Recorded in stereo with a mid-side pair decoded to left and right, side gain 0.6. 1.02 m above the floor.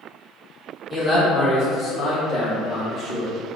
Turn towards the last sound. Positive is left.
turn(degrees=55)